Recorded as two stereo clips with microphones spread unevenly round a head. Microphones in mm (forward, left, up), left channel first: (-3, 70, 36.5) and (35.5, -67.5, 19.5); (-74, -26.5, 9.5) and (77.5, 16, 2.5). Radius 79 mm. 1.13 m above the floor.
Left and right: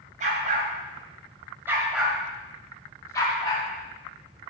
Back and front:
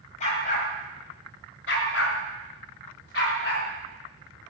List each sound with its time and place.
0.2 s a dog barking: 120° right, 2.5 m; by 3.6 s 165° left, 3 m